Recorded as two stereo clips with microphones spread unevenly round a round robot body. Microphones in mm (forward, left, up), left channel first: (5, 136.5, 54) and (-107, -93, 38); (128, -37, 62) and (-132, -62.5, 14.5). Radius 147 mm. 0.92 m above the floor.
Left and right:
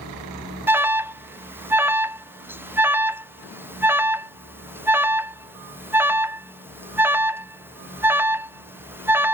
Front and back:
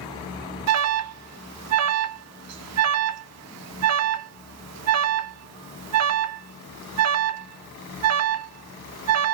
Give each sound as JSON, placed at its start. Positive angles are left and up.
{"t": 0.7, "sound": "an alarm", "azimuth_deg": 165, "distance_m": 0.6}